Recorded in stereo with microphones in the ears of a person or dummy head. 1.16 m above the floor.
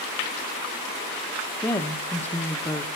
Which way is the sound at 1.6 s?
10° left (ahead or behind).